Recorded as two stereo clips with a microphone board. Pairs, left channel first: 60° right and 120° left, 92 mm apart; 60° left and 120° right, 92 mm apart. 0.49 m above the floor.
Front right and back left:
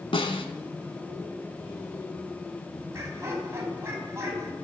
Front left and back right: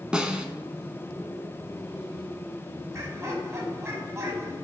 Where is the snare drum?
40° right, 1.4 m.